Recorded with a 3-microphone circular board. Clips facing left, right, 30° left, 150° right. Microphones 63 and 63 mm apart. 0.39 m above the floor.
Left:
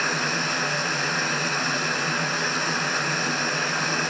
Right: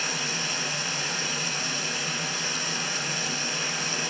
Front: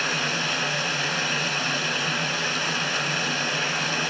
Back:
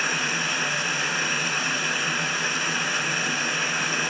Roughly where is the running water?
Behind left.